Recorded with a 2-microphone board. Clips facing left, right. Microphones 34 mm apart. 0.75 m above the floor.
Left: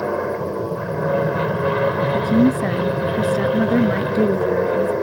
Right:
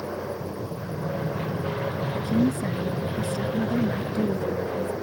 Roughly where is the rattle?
I don't hear a rattle.